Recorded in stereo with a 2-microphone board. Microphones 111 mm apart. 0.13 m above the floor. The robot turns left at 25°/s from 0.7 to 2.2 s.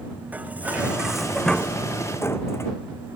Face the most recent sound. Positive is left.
turn(degrees=155)